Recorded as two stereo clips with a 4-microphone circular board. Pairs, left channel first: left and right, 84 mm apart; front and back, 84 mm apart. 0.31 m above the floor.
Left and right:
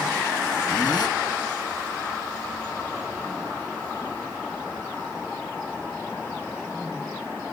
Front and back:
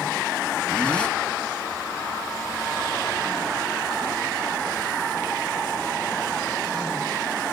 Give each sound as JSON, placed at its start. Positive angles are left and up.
{"t": 0.7, "sound": "a zipper", "azimuth_deg": 75, "distance_m": 2.5}